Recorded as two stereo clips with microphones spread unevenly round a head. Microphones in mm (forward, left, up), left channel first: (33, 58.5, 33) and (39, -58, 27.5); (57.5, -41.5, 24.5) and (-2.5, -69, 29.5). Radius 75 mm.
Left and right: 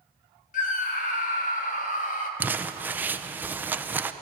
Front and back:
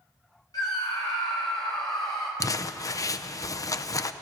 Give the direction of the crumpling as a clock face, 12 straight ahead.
12 o'clock.